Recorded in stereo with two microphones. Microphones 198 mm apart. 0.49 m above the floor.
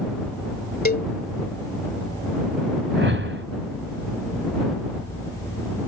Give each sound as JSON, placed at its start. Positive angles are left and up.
{"t": 0.8, "sound": "a cowbell", "side_deg": 55}
{"t": 3.0, "sound": "a whoosh", "side_deg": -75}